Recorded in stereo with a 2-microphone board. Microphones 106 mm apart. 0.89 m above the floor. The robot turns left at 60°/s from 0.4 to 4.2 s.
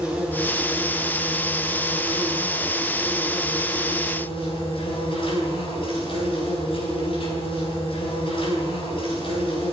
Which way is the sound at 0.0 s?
10° right.